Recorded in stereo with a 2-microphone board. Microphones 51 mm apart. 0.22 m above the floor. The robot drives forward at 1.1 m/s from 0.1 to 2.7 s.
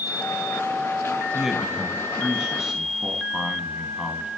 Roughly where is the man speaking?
Centre.